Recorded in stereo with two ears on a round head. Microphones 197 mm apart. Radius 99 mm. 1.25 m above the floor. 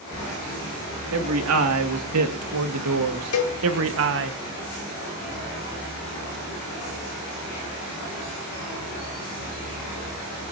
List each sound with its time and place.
1.1 s a man speaking: 75° right (ahead or behind), 2.5 m; by 4.3 s 55° right (ahead or behind), 1.6 m
3.3 s a cowbell: 70° left (ahead or behind), 2 m